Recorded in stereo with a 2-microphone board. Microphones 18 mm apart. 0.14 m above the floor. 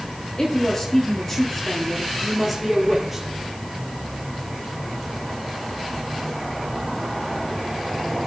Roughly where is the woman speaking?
Left.